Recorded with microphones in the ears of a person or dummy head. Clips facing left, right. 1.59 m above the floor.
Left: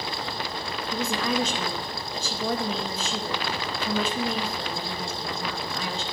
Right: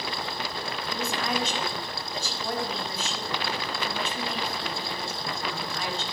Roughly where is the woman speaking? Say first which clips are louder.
Left 4 dB; left.